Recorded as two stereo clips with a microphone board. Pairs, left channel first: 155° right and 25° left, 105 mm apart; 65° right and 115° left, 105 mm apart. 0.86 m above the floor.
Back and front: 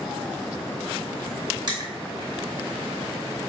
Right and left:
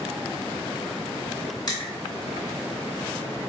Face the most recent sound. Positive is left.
turn(degrees=-20)